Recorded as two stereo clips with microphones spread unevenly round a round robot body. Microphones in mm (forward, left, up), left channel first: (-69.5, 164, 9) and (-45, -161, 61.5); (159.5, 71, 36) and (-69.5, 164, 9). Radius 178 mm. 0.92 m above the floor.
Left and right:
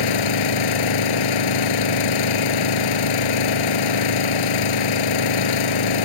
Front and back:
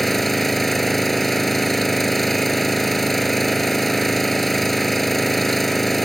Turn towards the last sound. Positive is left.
turn(degrees=65)